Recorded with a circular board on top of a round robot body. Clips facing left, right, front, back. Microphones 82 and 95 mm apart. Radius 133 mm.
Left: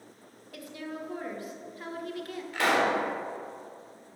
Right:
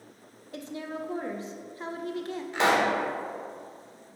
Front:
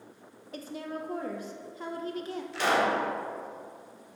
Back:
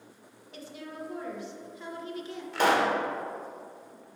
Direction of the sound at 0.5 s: 35° right.